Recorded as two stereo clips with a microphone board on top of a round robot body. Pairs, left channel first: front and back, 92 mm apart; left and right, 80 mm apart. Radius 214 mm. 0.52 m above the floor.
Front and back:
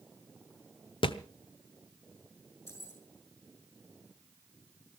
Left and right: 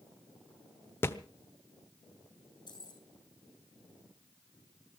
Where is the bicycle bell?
I don't hear a bicycle bell.